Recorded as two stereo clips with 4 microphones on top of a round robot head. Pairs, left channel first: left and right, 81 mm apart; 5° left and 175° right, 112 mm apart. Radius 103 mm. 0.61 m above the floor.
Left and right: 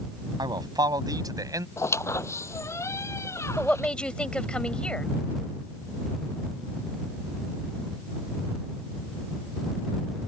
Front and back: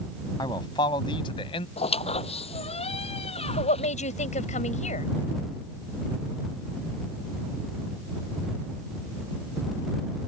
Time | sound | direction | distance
0.4 | a man speaking | 55° right | ?
1.8 | a squeak | 35° left | ?
3.6 | a woman speaking | 10° left | ?